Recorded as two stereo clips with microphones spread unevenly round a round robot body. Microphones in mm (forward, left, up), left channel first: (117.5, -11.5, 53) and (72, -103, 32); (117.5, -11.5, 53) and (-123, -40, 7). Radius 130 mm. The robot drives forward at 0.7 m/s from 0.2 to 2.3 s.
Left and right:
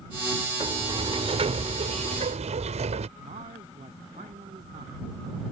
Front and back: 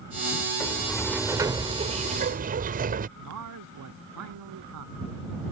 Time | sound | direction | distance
0.6 | a sliding door | 75° right | ?
3.2 | a man speaking | 160° right | ?